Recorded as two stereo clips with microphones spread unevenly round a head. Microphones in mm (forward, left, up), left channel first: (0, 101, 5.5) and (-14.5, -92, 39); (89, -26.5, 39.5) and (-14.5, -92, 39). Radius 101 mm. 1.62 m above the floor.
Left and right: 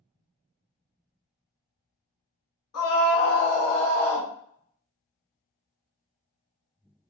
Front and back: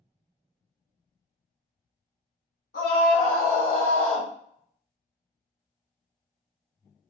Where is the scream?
60° left, 1.6 m; by 4.3 s 20° right, 1.0 m.